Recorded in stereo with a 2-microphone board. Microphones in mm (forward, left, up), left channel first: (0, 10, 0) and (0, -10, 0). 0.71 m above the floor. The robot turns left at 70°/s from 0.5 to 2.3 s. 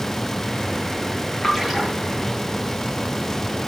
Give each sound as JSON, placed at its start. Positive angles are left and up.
{"t": 1.4, "sound": "a splash", "side_deg": 10, "distance_m": 8.0}